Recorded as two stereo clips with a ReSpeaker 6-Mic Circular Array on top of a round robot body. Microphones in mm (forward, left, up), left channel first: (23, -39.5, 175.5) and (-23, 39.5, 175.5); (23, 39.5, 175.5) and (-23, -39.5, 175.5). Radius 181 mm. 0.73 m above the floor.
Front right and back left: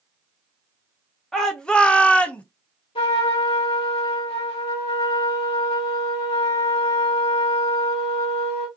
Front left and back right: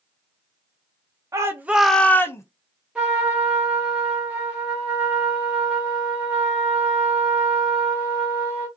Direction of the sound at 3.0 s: 40° right.